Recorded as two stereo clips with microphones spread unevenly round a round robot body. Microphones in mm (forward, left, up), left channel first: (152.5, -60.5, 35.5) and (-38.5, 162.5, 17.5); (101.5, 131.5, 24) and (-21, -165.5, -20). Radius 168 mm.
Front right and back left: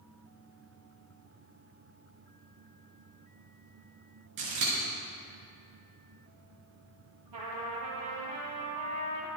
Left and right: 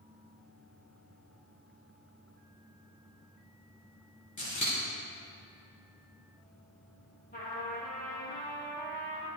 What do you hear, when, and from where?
4.4 s scissors: 140° left, 4 m
7.3 s a trumpet: 135° left, 3 m